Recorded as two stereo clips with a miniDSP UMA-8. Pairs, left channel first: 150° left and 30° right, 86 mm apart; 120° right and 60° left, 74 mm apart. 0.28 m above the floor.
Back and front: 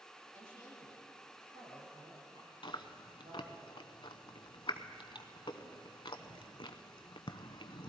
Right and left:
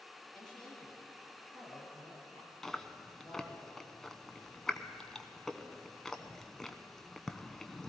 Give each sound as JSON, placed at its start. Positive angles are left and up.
{"t": 0.3, "sound": "a woman speaking", "azimuth_deg": -40, "distance_m": 6.0}
{"t": 2.6, "sound": "chewing", "azimuth_deg": 155, "distance_m": 0.7}